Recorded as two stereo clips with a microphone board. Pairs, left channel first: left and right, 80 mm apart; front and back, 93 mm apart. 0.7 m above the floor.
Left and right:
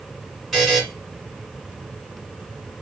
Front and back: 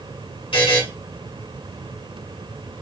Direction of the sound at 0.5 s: 5° right.